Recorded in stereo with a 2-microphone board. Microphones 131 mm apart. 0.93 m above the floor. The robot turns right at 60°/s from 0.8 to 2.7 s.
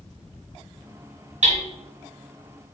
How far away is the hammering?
About 1.5 m.